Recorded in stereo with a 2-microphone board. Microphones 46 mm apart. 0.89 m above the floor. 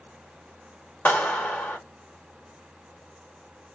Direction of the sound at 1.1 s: 45° left (ahead or behind).